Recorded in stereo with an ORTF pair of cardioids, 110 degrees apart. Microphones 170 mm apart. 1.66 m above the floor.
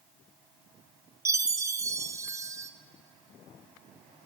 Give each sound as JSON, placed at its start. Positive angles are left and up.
{"t": 1.2, "sound": "a chime", "azimuth_deg": -20, "distance_m": 0.6}